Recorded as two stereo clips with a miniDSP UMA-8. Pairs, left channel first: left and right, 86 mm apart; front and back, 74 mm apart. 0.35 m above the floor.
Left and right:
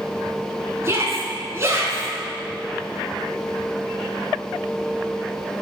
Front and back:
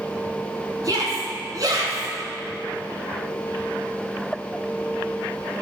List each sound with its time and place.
0.8 s a shout: 145° right, 4 m